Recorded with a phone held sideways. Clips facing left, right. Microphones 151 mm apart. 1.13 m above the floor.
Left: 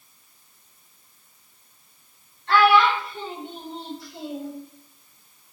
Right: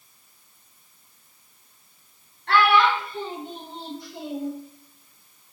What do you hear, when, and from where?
2.5 s a child speaking: 70° right (ahead or behind), 1.2 m; by 4.5 s 5° right (ahead or behind), 1.3 m